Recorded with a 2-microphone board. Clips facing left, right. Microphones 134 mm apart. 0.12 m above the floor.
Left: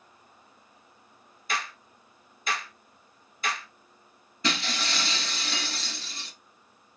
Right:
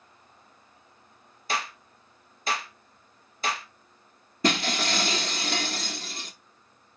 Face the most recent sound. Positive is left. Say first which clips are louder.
# right 5 dB
turn(degrees=-50)  # may be behind; listen again after turning